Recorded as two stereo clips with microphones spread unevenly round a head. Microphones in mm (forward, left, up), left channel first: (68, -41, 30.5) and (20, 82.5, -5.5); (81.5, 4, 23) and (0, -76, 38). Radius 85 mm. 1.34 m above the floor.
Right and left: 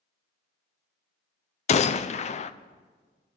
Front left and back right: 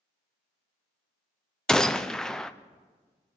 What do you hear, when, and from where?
1.7 s a gunshot: 35° right, 0.6 m